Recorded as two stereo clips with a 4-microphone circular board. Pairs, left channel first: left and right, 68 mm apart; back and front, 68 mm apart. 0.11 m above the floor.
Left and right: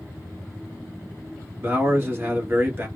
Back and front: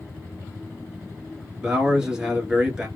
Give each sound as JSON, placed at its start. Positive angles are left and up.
{"t": 1.6, "sound": "a man speaking", "azimuth_deg": -70, "distance_m": 1.3}